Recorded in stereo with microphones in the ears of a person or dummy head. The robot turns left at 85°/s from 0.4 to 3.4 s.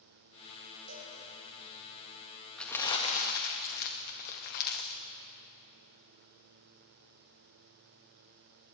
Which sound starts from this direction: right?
A cowbell, at 0.9 s.